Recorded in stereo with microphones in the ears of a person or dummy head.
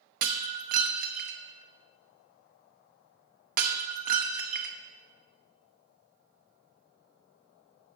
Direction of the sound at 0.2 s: 45° right (ahead or behind).